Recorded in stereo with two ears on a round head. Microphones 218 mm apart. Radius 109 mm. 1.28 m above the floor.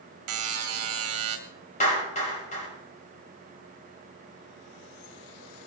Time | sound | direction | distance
0.3 | a buzzer | 65° right (ahead or behind) | 2 m
1.8 | a clap | 30° left (ahead or behind) | 6 m